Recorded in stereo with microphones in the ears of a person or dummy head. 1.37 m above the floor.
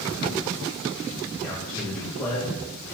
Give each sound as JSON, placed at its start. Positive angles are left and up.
{"t": 1.4, "sound": "a man speaking", "side_deg": 10, "distance_m": 2.5}